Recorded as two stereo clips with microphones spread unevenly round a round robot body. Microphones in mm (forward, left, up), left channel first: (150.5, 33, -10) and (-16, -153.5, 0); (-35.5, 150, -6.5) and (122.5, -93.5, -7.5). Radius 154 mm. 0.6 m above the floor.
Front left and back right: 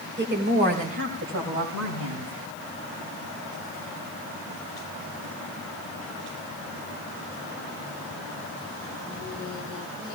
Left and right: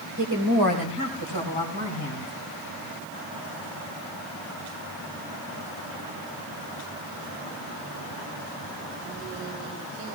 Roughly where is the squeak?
No squeak in this recording.